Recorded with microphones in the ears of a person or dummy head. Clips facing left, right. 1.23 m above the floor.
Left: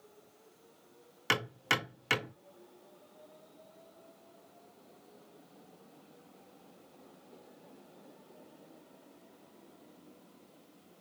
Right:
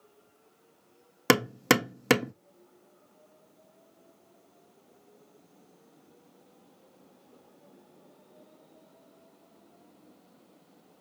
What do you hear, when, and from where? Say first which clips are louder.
1.3 s hammering: right 13 dB; 70° right (ahead or behind), 1.2 m